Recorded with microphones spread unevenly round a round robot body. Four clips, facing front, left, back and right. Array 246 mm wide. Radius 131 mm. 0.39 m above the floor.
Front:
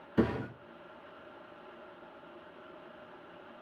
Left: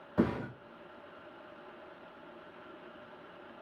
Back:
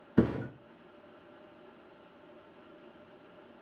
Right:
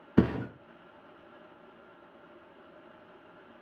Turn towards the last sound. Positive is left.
turn(degrees=-115)